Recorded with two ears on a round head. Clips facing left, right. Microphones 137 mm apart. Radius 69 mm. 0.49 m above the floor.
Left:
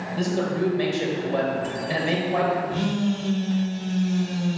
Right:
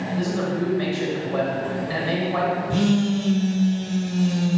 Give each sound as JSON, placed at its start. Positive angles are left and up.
{"t": 0.1, "sound": "a man speaking", "side_deg": 30, "distance_m": 1.9}
{"t": 2.7, "sound": "a phone buzzing", "side_deg": -55, "distance_m": 1.0}